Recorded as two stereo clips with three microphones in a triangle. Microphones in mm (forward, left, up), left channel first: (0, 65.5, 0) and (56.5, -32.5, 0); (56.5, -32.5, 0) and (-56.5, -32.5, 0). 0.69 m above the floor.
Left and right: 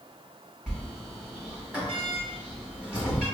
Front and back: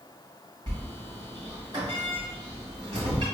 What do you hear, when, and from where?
0.7 s a sliding door: 140° right, 1.5 m